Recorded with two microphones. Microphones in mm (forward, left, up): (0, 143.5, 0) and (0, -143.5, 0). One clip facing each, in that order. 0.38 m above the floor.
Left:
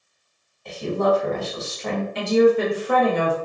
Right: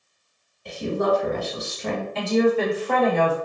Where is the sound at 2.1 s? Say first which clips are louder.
Left 3 dB; 15° left (ahead or behind), 1.2 m.